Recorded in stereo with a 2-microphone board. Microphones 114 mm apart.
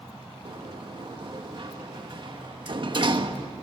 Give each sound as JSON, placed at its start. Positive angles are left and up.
{"t": 0.5, "sound": "a sliding door", "side_deg": -50, "distance_m": 1.2}